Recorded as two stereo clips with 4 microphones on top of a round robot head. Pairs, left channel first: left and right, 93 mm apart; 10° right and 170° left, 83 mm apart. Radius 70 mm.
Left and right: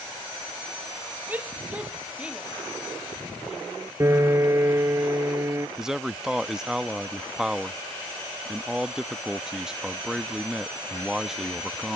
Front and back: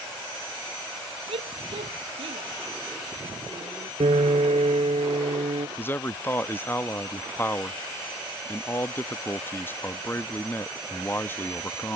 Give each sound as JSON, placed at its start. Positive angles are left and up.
{"t": 1.3, "sound": "a shout", "azimuth_deg": -165}
{"t": 4.0, "sound": "a piano", "azimuth_deg": -150}
{"t": 5.8, "sound": "a man speaking", "azimuth_deg": -15}